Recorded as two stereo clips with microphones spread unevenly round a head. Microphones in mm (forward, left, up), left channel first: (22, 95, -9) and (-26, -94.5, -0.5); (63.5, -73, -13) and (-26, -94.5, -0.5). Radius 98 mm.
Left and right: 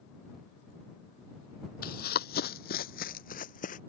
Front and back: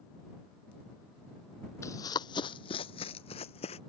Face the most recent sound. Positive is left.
turn(degrees=25)